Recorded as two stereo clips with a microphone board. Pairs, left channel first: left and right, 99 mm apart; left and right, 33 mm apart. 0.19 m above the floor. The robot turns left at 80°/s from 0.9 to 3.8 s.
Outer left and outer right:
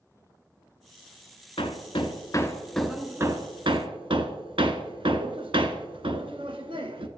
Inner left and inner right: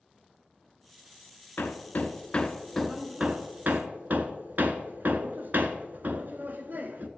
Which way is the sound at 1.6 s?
65° left (ahead or behind).